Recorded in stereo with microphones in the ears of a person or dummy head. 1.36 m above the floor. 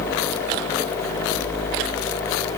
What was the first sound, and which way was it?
Only background noise.